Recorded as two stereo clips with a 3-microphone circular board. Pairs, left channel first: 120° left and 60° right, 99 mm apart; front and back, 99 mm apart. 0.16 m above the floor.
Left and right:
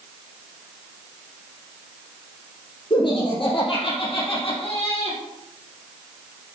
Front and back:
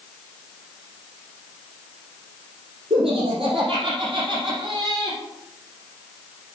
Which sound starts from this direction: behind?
Laughter, at 2.9 s.